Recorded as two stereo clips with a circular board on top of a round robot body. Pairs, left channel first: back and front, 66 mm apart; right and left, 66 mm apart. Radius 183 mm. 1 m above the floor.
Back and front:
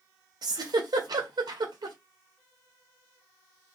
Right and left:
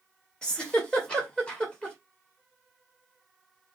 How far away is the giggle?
About 1.3 m.